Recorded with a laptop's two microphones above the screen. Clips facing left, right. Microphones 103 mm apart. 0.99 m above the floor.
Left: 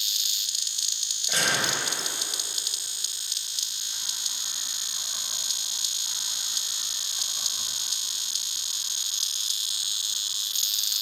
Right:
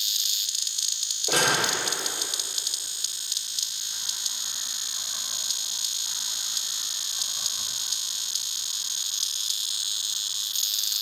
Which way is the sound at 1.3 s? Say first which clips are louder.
Right 4 dB; 75° right (ahead or behind).